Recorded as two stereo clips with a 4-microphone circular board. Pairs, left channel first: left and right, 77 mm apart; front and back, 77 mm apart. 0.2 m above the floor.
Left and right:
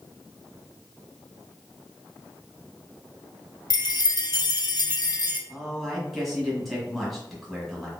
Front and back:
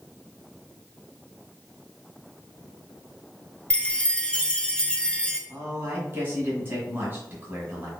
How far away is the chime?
About 0.7 m.